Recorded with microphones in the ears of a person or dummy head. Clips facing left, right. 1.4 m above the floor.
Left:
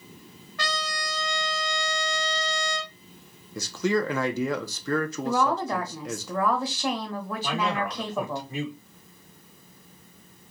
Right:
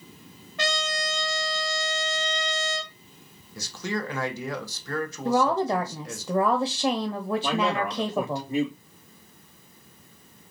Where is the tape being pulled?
No tape being pulled in this recording.